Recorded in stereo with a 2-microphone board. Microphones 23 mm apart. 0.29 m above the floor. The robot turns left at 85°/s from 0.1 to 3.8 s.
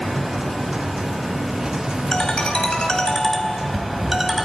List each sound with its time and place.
2.1 s a ringtone: 125° left, 1.3 m; by 4.5 s 20° right, 1.3 m